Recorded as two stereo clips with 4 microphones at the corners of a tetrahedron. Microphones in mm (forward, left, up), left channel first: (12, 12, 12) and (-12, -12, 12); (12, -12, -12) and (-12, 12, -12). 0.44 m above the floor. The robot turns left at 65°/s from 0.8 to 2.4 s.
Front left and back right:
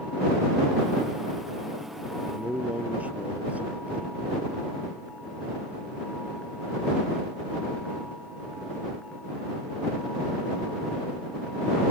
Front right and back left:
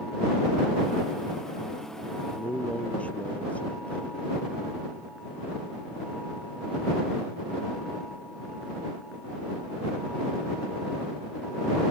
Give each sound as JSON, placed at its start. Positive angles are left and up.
{"t": 2.2, "sound": "a man speaking", "azimuth_deg": -80}